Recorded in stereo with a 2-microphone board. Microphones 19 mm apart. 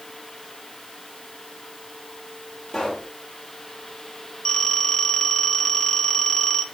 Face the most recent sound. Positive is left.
turn(degrees=55)  # may be behind; listen again after turning